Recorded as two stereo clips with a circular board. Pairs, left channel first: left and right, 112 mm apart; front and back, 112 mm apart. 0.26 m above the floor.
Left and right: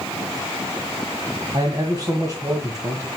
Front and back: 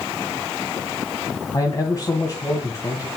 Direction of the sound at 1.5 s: 45° right.